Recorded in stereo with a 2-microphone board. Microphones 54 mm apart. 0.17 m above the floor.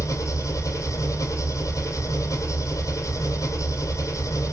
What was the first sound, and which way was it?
An engine running, 80° left.